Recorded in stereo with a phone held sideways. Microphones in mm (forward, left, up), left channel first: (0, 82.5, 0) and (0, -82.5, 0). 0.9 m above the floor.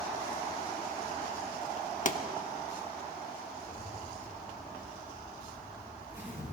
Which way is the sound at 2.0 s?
50° left (ahead or behind).